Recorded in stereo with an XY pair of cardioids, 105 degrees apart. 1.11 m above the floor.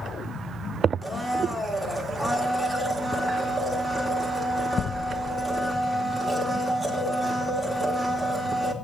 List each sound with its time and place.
1.0 s a blender: 5° left, 2.5 m